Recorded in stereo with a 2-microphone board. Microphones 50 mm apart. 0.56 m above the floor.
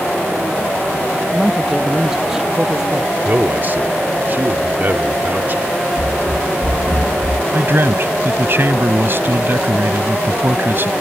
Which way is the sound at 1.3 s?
10° right (ahead or behind).